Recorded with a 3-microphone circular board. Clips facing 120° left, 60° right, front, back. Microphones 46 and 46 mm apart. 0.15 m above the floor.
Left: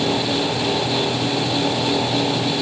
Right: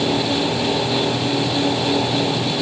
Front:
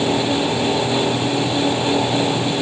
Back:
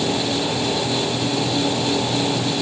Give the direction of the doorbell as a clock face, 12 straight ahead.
I don't hear a doorbell.